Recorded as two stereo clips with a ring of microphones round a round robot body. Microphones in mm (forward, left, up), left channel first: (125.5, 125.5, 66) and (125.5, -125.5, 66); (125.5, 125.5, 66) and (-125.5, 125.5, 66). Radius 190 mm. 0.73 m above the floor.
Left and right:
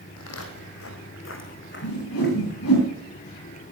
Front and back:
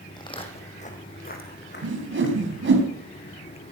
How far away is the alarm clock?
I don't hear an alarm clock.